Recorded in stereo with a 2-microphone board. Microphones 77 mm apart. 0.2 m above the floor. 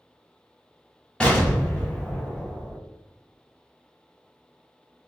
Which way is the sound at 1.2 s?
10° left (ahead or behind).